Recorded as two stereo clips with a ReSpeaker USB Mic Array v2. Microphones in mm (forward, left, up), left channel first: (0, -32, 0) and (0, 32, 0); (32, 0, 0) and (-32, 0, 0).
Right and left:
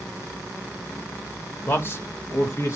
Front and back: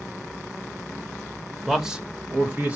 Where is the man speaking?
95° right, 0.9 m; by 2.8 s 120° right, 1.6 m.